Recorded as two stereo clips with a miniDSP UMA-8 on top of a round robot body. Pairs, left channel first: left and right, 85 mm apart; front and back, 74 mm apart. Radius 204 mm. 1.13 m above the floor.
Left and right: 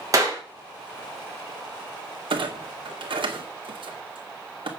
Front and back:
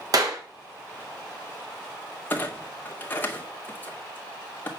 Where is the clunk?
65° right, 2 m.